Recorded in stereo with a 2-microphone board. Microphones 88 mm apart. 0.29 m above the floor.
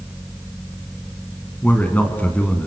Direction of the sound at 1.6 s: 15° left (ahead or behind).